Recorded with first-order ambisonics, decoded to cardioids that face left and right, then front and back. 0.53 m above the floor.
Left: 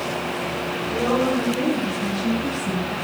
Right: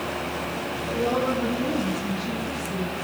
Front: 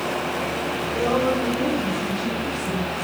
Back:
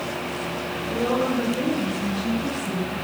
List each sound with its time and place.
0.8 s a woman speaking: 110° left, 7.5 m; by 3.0 s 90° left, 7 m